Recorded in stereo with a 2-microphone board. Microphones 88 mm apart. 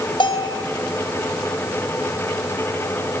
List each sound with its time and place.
0.2 s a bell: 65° left (ahead or behind), 2.5 m